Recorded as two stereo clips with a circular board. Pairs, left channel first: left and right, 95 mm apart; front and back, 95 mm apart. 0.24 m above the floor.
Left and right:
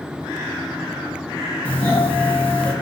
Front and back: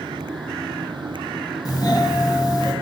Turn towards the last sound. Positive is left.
turn(degrees=20)